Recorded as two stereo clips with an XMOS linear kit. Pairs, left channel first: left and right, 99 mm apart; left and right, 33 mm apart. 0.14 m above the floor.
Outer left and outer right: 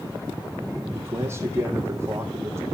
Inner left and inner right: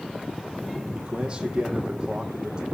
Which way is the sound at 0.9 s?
25° right (ahead or behind).